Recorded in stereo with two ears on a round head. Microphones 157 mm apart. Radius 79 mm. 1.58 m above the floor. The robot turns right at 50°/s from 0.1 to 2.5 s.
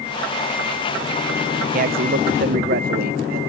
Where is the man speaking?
115° right; by 3.4 s 75° right.